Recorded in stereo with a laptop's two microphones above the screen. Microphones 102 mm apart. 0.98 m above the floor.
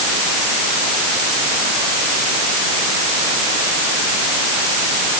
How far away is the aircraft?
I don't hear an aircraft.